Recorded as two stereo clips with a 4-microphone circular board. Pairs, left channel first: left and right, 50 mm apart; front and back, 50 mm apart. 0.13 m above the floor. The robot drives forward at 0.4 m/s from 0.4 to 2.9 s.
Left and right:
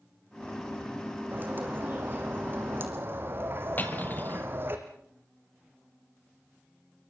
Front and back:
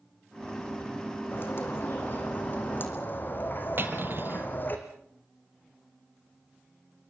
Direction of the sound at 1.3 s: 35° right.